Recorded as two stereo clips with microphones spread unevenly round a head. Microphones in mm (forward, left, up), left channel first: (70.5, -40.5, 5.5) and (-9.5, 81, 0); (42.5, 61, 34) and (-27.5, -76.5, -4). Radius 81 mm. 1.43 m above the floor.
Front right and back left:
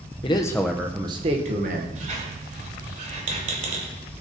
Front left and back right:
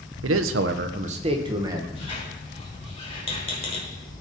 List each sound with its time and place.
0.2 s a man speaking: 115° right, 0.5 m; by 1.9 s 170° left, 1.0 m
1.9 s a squeak: 100° left, 1.7 m